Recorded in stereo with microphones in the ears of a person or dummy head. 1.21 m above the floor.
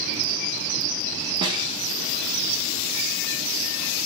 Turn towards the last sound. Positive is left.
turn(degrees=-20)  # may be behind; listen again after turning